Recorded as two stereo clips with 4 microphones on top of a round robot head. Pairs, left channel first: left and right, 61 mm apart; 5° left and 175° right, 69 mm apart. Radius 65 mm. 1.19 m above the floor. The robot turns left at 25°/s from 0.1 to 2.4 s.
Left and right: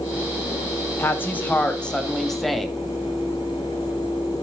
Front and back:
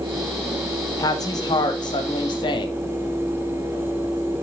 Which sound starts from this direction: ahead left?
A woman speaking, at 1.0 s.